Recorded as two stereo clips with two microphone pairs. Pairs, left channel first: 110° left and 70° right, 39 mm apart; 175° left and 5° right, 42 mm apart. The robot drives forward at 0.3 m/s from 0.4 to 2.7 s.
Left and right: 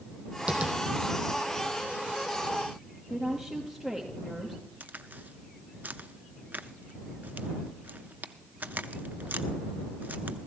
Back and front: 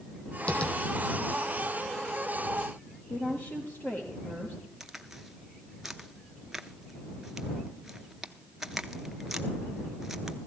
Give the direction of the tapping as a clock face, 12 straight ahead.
4 o'clock.